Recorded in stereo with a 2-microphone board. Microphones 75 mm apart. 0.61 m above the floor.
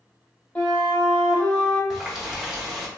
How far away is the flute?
About 1.2 m.